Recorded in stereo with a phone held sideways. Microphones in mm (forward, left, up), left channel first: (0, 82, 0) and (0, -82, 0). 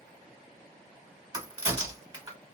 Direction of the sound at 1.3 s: 25° right (ahead or behind).